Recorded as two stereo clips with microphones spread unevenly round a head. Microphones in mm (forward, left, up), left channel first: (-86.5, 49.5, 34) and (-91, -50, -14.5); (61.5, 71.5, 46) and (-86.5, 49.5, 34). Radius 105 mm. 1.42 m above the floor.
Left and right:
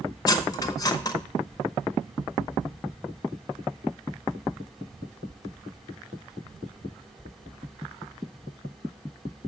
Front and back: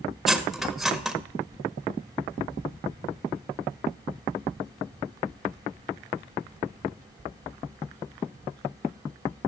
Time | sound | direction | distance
0.3 | cutlery clinking | 95° left | 0.8 m